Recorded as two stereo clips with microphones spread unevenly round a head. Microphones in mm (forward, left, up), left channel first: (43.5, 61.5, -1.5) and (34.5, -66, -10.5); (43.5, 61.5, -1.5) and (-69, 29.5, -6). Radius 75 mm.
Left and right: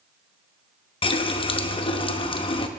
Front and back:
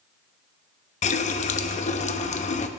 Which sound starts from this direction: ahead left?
A running tap, at 1.0 s.